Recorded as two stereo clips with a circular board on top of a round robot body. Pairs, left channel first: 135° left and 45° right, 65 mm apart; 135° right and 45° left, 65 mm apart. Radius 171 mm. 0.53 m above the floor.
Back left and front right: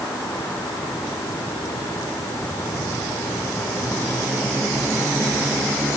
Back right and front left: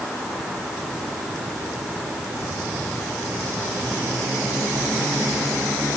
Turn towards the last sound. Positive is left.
No sound to turn to.